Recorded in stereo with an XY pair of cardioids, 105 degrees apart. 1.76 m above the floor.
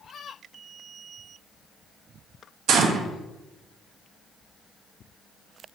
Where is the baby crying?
I don't hear a baby crying.